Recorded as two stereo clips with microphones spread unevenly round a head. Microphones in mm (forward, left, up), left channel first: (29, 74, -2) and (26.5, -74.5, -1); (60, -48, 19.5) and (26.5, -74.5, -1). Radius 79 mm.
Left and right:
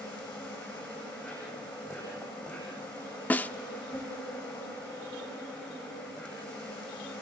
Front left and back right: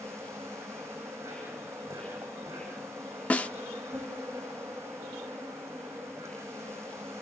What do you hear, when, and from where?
0.0 s an insect: 170° left, 10 m
3.3 s a snare drum: 10° left, 1.0 m